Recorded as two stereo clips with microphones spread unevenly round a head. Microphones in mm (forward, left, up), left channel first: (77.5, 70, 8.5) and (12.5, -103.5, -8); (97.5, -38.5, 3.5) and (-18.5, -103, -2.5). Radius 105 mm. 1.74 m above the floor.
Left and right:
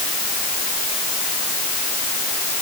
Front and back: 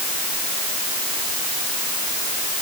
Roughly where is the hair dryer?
No hair dryer in this recording.